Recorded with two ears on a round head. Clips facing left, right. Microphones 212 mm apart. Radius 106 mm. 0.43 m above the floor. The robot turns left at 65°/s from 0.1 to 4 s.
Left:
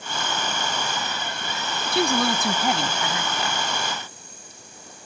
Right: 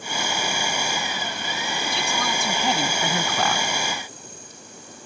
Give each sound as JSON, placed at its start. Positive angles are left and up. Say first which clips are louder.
{"t": 1.9, "sound": "a woman speaking", "louder": "left 10 dB", "azimuth_deg": 50}